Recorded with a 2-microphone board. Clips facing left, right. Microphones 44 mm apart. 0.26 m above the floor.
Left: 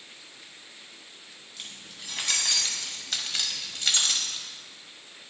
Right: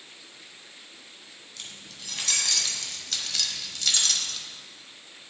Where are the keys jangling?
15° left (ahead or behind), 1.8 m; by 4.4 s 20° left (ahead or behind), 1.0 m.